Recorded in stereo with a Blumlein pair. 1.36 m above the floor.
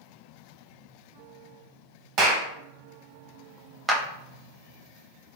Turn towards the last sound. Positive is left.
turn(degrees=-15)